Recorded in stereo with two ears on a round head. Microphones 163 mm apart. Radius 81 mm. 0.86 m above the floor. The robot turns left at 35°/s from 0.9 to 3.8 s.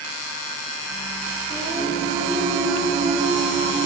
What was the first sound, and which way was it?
Singing, 5° right.